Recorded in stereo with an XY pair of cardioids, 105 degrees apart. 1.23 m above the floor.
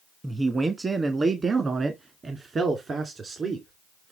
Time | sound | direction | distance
0.2 | a man speaking | 20° right | 1.3 m